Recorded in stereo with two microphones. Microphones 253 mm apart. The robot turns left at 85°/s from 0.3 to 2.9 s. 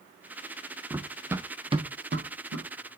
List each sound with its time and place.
0.9 s running footsteps: 10° right (ahead or behind), 0.7 m; by 2.7 s 80° right, 1.7 m